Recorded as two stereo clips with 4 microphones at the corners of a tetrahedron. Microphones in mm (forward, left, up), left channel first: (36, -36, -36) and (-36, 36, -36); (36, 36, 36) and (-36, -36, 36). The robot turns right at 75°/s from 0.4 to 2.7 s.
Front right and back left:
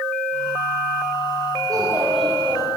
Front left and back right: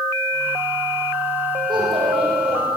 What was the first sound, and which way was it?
A child speaking, 175° right.